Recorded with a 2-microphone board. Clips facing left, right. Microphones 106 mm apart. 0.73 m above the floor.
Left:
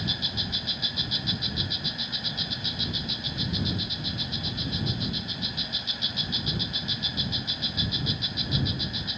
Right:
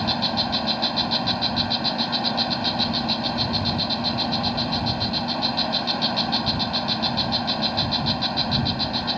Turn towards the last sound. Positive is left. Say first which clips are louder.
# right 11 dB
turn(degrees=-70)  # may be behind; listen again after turning